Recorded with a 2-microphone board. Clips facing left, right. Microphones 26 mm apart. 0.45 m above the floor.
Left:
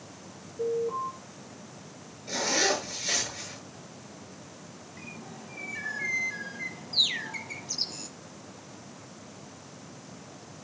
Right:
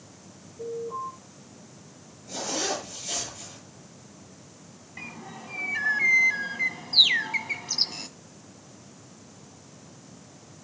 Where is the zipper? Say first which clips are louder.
Left 4 dB; 70° left (ahead or behind), 8.5 m.